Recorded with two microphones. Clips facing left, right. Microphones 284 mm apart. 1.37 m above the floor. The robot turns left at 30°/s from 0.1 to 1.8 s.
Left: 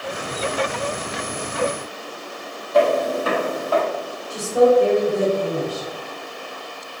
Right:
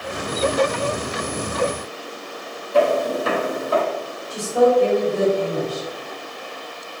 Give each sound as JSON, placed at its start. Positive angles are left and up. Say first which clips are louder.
{"t": 2.7, "sound": "footsteps", "louder": "even", "side_deg": -35, "distance_m": 1.8}
{"t": 4.3, "sound": "a woman speaking", "louder": "left 1 dB", "side_deg": 5, "distance_m": 1.8}